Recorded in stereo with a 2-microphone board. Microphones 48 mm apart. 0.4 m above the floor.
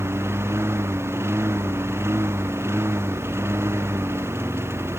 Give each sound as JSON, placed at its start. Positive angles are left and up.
{"t": 0.0, "sound": "a lawn mower", "side_deg": -60}